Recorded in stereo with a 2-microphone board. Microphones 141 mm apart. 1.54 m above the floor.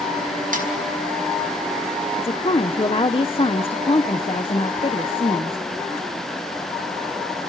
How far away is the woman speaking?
About 0.9 m.